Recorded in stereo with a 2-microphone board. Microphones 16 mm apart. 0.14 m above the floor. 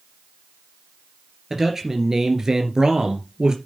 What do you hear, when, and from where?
1.5 s a man speaking: 25° right (ahead or behind), 2.5 m; by 3.5 s 55° right (ahead or behind), 3 m